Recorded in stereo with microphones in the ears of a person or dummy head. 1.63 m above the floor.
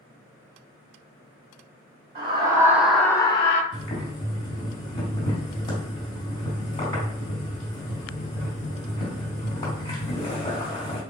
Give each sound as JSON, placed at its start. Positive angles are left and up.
{"t": 2.1, "sound": "a scream", "side_deg": -30, "distance_m": 1.1}
{"t": 3.7, "sound": "boiling", "side_deg": 35, "distance_m": 2.5}